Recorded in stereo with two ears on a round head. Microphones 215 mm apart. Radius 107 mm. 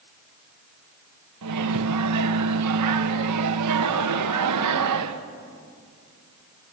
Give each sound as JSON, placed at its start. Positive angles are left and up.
{"t": 1.4, "sound": "a microwave", "side_deg": -85, "distance_m": 1.2}